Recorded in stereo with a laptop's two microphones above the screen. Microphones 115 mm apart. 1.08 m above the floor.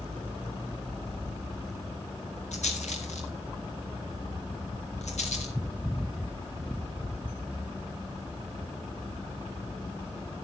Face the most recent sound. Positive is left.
turn(degrees=85)